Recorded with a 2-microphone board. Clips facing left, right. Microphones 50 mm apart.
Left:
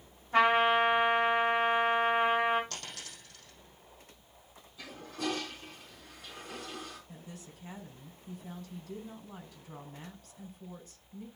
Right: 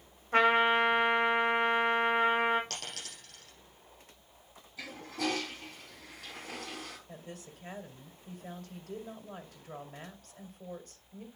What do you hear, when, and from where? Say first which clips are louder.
0.3 s a trumpet: even; 55° right (ahead or behind), 7 m
2.7 s a dropped coin: right 2 dB; 70° right (ahead or behind), 6.5 m
4.8 s a toilet flushing: right 2 dB; 70° right (ahead or behind), 4 m
7.1 s a woman speaking: right 2 dB; 50° right (ahead or behind), 2 m